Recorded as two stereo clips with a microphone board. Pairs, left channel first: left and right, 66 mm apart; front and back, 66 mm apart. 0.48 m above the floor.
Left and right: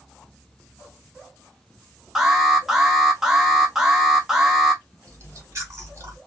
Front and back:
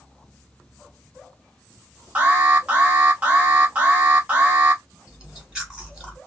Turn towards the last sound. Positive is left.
turn(degrees=-110)